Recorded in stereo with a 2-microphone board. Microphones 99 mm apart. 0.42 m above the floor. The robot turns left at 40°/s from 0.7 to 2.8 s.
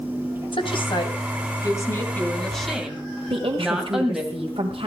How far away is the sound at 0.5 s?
About 2.5 m.